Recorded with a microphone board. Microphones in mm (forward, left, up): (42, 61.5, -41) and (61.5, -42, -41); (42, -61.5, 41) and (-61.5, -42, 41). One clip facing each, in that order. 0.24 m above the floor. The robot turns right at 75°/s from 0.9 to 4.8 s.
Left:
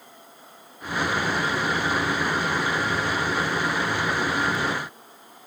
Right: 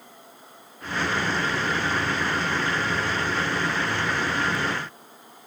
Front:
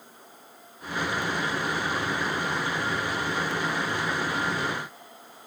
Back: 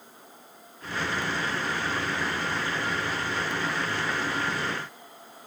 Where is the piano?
No piano in this recording.